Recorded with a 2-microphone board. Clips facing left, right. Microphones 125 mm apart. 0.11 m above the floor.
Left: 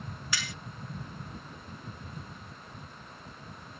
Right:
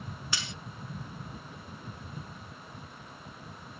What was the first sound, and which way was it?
Cutlery clinking, 25° right (ahead or behind).